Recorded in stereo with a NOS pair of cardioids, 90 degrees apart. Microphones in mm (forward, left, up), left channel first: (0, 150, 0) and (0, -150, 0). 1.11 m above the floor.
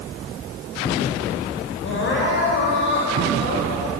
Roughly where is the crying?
Ahead left.